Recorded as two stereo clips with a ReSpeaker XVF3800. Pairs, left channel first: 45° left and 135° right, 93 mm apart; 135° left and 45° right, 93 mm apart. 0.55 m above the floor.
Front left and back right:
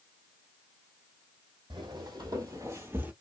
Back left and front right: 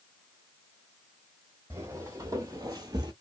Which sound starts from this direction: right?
Footsteps, at 1.7 s.